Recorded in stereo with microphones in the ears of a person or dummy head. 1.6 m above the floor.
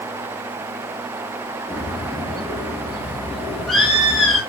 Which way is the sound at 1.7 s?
Centre (ahead or behind).